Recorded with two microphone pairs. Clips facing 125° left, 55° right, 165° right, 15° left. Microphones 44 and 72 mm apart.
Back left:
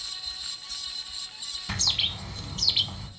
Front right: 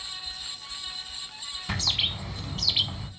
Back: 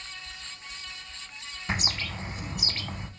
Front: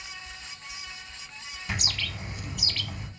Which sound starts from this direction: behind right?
A bird, at 1.7 s.